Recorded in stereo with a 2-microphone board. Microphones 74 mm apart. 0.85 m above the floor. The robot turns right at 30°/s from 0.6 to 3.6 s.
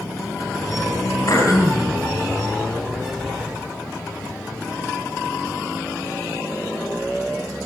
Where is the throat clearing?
55° left (ahead or behind), 4.5 m; by 1.9 s 35° left (ahead or behind), 4.5 m.